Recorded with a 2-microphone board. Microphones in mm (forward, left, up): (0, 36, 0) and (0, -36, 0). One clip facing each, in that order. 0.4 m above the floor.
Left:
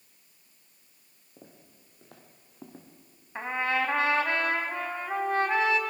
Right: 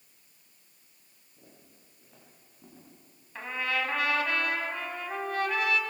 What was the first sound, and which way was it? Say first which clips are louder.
Footsteps: left 4 dB; 85° left.